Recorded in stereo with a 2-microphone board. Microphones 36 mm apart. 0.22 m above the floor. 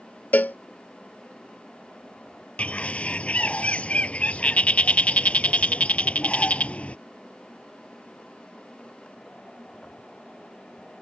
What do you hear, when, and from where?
0.3 s a cowbell: 60° left (ahead or behind)
2.6 s a bird: 40° left (ahead or behind)